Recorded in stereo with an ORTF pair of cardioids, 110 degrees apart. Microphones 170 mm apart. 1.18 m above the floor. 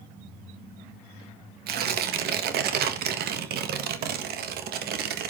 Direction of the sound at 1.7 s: 65° right.